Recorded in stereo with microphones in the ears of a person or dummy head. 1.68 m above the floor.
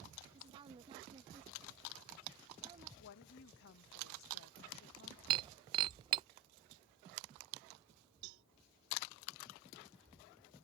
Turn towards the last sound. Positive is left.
turn(degrees=-70)  # may be behind; listen again after turning